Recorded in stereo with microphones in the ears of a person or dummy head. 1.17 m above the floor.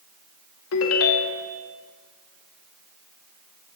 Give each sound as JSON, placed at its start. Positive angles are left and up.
{"t": 0.7, "sound": "a ringtone", "side_deg": 80, "distance_m": 0.7}